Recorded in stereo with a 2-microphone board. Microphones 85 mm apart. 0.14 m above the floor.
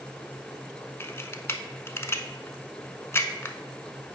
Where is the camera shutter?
30° left (ahead or behind), 0.5 m.